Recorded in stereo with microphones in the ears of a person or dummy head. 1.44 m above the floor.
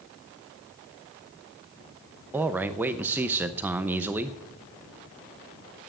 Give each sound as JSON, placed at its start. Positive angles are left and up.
{"t": 2.3, "sound": "a man speaking", "side_deg": -5, "distance_m": 0.7}